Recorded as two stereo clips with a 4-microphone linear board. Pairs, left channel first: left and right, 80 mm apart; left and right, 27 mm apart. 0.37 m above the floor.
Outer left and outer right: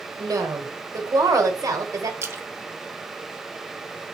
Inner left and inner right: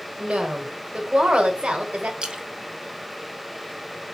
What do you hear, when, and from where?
0.2 s a woman speaking: 50° right (ahead or behind), 1.2 m
2.2 s a splash: 35° right (ahead or behind), 0.8 m